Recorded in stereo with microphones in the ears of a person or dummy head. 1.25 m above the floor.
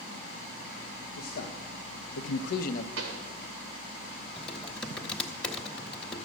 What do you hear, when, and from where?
1.2 s a man speaking: 55° left (ahead or behind), 1.1 m; by 2.9 s 40° left (ahead or behind), 0.8 m
3.0 s a pop: 55° right (ahead or behind), 1.3 m
4.4 s typing on a keyboard: centre (ahead or behind), 1.2 m